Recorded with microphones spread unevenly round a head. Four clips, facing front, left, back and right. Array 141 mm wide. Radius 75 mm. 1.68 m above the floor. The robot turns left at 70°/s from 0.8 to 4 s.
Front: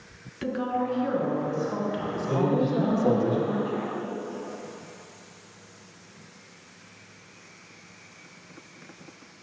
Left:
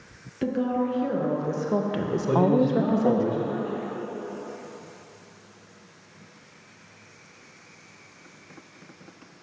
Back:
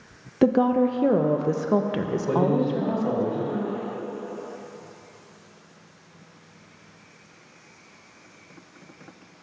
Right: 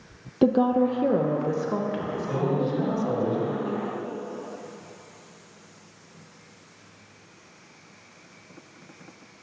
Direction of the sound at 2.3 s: 125° left.